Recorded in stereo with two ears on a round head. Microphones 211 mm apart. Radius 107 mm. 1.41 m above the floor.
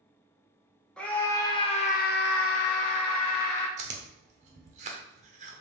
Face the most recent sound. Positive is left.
turn(degrees=-30)  # may be behind; listen again after turning